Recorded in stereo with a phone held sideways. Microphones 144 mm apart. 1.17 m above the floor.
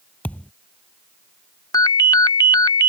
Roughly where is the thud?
Centre.